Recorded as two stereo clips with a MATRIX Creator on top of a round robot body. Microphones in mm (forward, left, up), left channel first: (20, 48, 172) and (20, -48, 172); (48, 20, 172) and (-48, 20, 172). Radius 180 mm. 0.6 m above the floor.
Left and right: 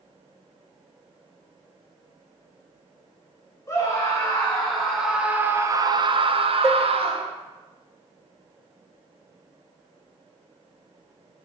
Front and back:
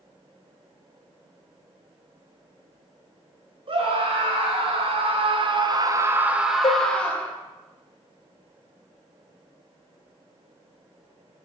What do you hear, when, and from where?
3.7 s a scream: 160° left, 2.5 m; by 7.3 s 75° right, 1.8 m
6.6 s dishes clattering: 25° right, 0.8 m